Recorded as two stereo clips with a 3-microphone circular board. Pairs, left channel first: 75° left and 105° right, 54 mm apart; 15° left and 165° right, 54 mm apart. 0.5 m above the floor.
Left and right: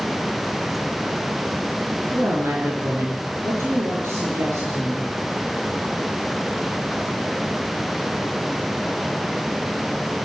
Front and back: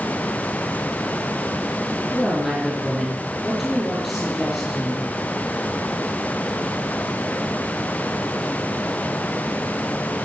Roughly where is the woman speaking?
Right.